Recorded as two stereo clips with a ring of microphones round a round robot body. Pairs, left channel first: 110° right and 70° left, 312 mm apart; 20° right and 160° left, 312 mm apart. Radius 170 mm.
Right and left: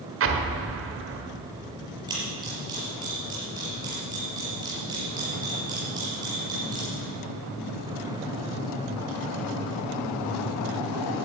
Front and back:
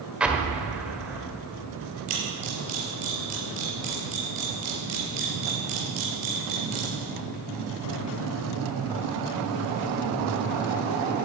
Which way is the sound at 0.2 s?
75° left.